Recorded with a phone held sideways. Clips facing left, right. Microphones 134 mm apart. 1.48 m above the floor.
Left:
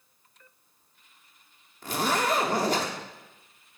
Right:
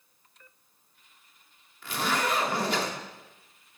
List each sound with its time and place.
1.8 s a zipper: 40° left (ahead or behind), 1.7 m